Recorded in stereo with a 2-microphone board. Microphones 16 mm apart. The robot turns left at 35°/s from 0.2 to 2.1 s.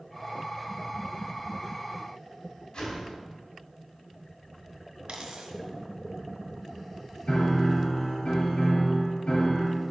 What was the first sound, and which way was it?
A whoosh, 50° left (ahead or behind).